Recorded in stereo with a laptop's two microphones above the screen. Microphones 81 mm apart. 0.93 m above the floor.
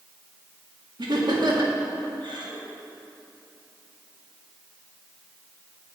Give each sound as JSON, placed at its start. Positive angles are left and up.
{"t": 1.0, "sound": "laughter", "side_deg": -65, "distance_m": 2.0}